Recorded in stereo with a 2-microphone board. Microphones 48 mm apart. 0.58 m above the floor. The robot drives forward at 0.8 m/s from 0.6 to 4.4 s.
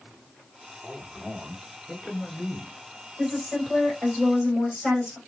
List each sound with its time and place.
0.8 s a man speaking: 20° right (ahead or behind), 1.8 m; by 2.8 s 10° right (ahead or behind), 3 m
3.2 s a woman speaking: 15° right (ahead or behind), 3 m; by 5.2 s 10° right (ahead or behind), 4 m